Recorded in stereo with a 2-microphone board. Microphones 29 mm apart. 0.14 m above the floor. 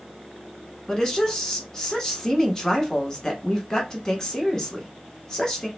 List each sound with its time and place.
0.9 s a woman speaking: 20° left (ahead or behind), 1.0 m